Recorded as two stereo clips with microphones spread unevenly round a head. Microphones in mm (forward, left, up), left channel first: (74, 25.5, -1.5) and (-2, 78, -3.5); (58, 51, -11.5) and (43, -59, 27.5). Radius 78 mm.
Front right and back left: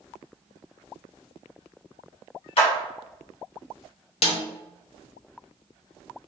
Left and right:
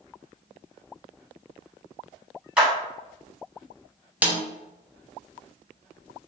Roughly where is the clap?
Ahead.